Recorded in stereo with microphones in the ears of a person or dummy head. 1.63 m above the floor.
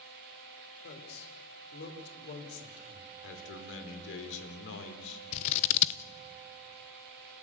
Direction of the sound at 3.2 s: 75° left (ahead or behind).